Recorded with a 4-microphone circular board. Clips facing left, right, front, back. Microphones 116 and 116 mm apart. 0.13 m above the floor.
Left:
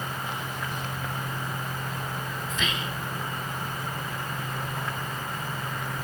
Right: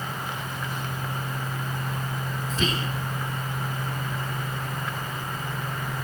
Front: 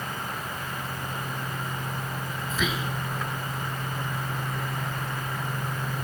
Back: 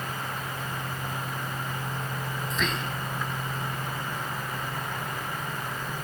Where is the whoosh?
I don't hear a whoosh.